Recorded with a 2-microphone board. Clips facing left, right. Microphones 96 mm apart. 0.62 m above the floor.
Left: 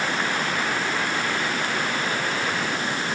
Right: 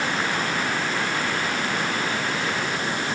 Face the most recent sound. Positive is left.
No sound to turn to.